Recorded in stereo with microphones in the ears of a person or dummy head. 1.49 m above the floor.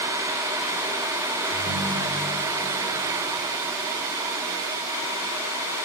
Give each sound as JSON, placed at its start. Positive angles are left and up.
{"t": 1.5, "sound": "a ringtone", "side_deg": 40, "distance_m": 8.5}